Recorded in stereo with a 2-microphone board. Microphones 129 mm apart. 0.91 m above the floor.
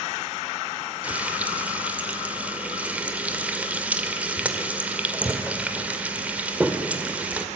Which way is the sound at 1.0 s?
10° right (ahead or behind).